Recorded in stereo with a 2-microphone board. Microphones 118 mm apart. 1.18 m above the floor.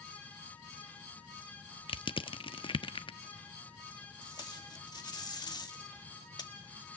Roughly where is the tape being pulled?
Left.